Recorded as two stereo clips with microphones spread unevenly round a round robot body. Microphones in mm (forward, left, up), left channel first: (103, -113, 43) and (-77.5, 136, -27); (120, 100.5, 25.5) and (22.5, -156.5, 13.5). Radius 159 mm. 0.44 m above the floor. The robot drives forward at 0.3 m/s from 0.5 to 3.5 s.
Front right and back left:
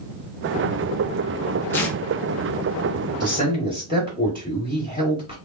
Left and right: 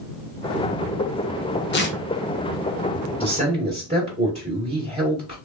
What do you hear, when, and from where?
1.7 s tearing paper: 40° left, 0.7 m; by 2.0 s 50° left, 0.6 m
3.2 s a man speaking: 175° right, 1.8 m